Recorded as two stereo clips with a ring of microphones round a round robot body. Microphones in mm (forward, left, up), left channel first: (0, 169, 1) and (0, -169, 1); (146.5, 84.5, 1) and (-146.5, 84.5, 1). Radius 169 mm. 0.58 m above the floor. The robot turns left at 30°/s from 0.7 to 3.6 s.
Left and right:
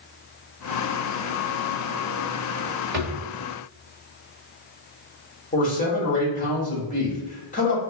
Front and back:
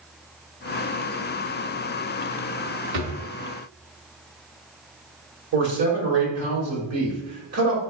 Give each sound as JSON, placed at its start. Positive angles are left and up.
{"t": 2.9, "sound": "a drawer", "azimuth_deg": -150, "distance_m": 1.3}
{"t": 5.5, "sound": "a man speaking", "azimuth_deg": 155, "distance_m": 1.6}